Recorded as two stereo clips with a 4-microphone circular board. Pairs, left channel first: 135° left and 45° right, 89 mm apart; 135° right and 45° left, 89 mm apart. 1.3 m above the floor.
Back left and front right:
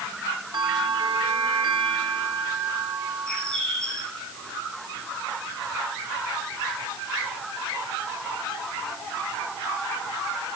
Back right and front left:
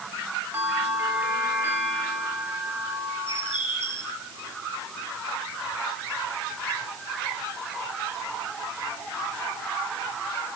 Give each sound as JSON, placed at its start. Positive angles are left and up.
{"t": 0.5, "sound": "a bell", "azimuth_deg": -20, "distance_m": 5.0}
{"t": 3.3, "sound": "a bird", "azimuth_deg": -145, "distance_m": 5.0}